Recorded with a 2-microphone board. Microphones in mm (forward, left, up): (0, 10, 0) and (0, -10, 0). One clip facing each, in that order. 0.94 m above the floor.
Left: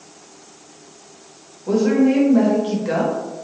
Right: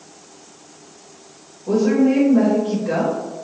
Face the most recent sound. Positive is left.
turn(degrees=55)  # may be behind; listen again after turning